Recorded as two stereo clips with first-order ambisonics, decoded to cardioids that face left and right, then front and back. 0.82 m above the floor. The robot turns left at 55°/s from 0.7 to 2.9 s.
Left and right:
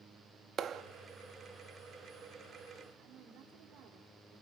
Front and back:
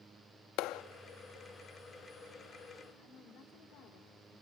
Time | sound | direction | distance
0.6 | a clap | 35° right | 0.5 m
3.0 | a woman speaking | 35° right | 3 m